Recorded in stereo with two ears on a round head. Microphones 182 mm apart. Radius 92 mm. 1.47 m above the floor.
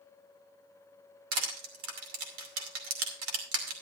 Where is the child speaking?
I don't hear a child speaking.